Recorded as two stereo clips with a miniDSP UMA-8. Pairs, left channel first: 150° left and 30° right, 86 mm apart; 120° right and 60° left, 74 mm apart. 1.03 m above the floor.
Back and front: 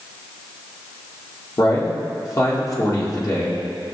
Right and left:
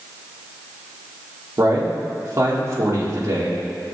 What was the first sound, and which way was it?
A man speaking, 105° left.